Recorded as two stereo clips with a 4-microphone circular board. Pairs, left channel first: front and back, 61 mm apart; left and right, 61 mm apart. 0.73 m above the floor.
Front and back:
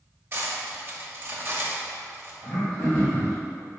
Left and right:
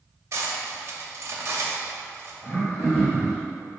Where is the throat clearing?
70° left, 1.8 m.